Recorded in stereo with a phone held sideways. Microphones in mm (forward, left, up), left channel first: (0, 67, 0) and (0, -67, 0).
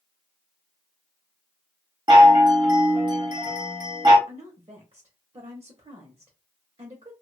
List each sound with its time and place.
2.1 s a chime: 35° right (ahead or behind), 1.2 m
4.3 s a woman speaking: 45° right (ahead or behind), 0.9 m